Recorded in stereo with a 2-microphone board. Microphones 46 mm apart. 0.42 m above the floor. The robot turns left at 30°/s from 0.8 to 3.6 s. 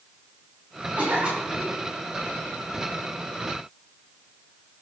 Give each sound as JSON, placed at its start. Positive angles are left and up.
{"t": 1.0, "sound": "a cough", "side_deg": -30, "distance_m": 4.5}